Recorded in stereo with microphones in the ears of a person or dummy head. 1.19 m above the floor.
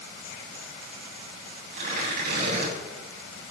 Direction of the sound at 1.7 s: 55° right (ahead or behind).